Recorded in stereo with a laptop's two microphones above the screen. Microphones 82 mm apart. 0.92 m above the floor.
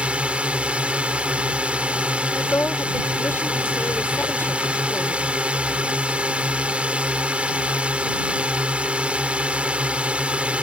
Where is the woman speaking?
30° left (ahead or behind).